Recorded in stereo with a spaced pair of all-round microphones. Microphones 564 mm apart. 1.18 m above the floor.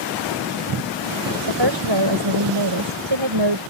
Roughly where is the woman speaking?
Right.